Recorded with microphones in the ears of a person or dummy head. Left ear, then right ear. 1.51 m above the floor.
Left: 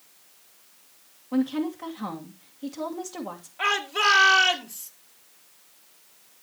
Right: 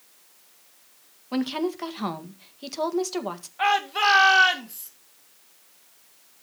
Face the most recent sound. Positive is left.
turn(degrees=-10)  # may be behind; listen again after turning